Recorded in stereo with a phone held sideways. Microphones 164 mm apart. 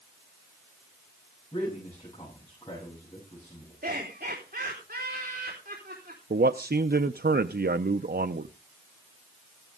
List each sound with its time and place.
1.5 s a man speaking: 25° left (ahead or behind), 7.5 m
3.8 s laughter: 70° right (ahead or behind), 3.5 m
6.3 s a man speaking: 70° right (ahead or behind), 0.5 m